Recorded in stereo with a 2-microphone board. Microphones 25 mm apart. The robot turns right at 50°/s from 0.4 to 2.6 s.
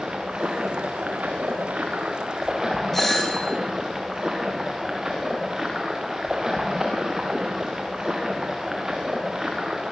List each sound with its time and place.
0.0 s running water: 130° right, 5.5 m; by 9.9 s 20° right, 5.5 m
2.9 s a doorbell: 10° left (ahead or behind), 5 m